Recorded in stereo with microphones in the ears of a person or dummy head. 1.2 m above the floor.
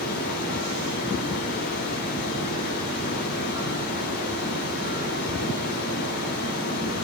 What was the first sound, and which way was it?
Running water, 65° left (ahead or behind).